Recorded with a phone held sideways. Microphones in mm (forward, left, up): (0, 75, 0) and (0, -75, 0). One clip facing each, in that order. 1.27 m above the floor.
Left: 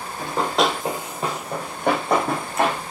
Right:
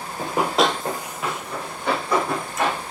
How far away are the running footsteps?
About 1.3 m.